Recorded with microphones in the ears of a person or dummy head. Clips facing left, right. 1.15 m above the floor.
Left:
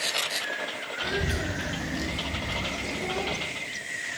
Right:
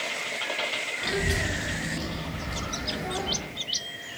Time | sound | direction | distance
1.0 | a child speaking | 5° right (ahead or behind) | 1.0 m